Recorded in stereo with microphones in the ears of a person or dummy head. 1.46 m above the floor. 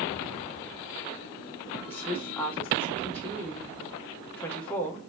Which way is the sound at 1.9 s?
5° left (ahead or behind).